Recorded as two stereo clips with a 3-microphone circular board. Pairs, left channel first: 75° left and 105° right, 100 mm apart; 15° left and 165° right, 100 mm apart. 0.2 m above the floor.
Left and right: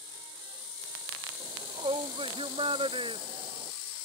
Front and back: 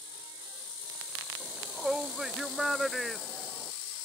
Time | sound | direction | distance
1.4 | a shout | 80° right | ?